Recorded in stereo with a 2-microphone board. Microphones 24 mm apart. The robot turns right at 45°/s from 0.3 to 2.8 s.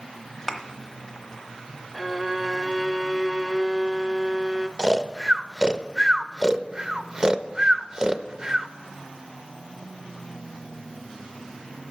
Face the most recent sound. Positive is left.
turn(degrees=-25)  # may be behind; listen again after turning